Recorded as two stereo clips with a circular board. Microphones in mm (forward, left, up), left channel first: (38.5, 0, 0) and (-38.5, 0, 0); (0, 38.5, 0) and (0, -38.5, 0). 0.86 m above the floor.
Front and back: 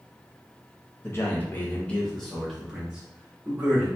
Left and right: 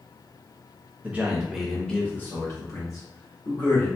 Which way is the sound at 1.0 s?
30° right.